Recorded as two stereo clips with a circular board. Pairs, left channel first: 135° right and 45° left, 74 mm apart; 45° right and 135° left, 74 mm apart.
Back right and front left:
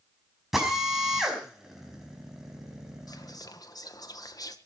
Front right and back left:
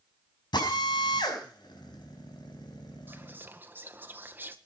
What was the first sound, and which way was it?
A drill, 40° right.